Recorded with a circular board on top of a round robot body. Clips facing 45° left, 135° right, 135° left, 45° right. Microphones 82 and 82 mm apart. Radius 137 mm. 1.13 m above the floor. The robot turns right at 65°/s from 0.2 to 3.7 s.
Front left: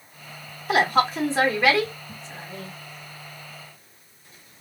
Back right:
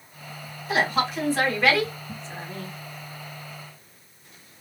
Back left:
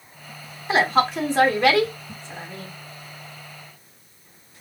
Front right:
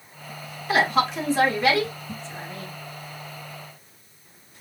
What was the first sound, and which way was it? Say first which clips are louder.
A woman speaking: front left 4 dB, back left 2 dB; 70° left.